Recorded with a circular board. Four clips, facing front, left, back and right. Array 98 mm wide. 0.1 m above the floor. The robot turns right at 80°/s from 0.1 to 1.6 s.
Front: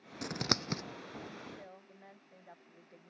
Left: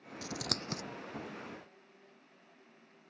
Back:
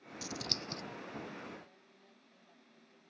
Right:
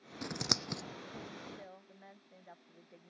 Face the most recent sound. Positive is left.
turn(degrees=-45)